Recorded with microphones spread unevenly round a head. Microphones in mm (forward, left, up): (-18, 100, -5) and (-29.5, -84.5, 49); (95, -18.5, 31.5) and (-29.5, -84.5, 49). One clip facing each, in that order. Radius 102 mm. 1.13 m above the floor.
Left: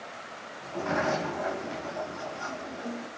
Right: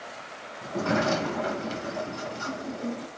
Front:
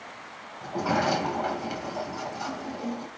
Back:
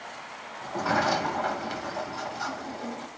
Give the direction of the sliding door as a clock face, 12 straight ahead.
2 o'clock.